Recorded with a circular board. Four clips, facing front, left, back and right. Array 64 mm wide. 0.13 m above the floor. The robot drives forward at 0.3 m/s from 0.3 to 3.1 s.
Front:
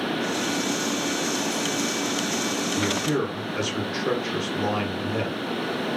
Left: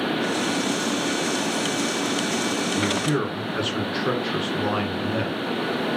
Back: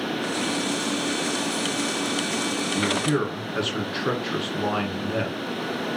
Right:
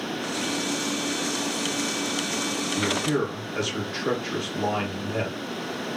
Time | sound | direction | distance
2.8 | a man speaking | 130° left | 1.2 m